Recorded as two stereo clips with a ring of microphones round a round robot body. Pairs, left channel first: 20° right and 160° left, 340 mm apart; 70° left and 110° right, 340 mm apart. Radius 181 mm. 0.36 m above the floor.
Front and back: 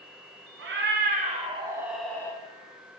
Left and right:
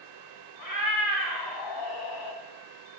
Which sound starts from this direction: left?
A cat meowing, at 0.6 s.